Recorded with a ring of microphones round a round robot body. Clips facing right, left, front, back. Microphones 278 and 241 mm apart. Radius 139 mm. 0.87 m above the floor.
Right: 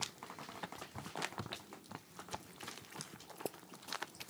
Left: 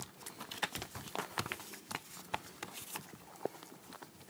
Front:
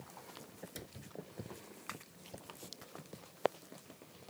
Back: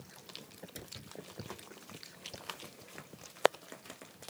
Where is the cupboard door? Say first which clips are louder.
Left 4 dB, back 1 dB; 90° left.